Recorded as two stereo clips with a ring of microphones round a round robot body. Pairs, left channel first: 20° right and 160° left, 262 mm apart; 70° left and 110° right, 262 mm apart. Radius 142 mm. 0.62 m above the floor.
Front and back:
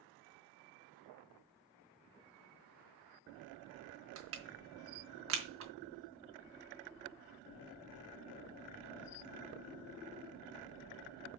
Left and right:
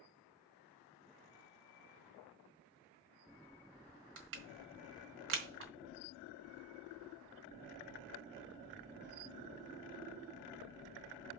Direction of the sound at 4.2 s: 160° right.